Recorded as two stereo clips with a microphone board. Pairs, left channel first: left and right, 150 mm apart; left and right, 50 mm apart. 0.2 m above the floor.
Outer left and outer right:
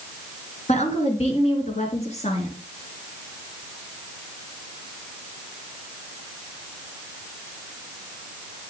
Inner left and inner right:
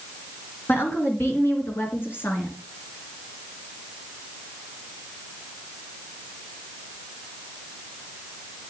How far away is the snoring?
No snoring in this recording.